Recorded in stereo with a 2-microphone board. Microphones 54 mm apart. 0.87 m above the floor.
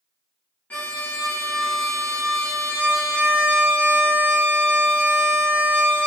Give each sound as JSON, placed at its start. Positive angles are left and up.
{"t": 0.7, "sound": "a violin", "side_deg": 30, "distance_m": 0.6}